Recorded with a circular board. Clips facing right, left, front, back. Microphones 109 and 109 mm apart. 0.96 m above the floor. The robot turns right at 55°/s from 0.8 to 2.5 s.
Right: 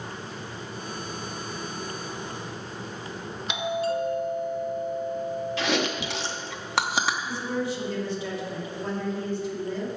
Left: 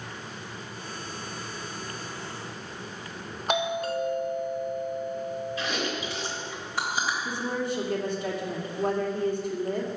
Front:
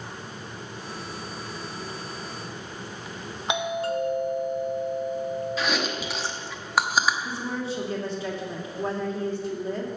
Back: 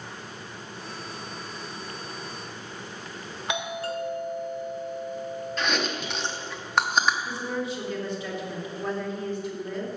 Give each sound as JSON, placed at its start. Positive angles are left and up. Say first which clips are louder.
{"t": 3.5, "sound": "a doorbell", "louder": "even, front 4 dB", "azimuth_deg": 65, "distance_m": 1.2}
{"t": 5.6, "sound": "chewing", "louder": "right 4 dB, front 1 dB", "azimuth_deg": -85, "distance_m": 0.9}
{"t": 7.2, "sound": "a woman speaking", "louder": "right 1 dB, even", "azimuth_deg": 50, "distance_m": 2.0}